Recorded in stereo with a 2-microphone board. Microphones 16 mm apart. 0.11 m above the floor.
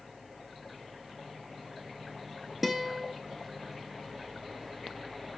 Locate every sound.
2.6 s a guitar: 5° right (ahead or behind), 0.5 m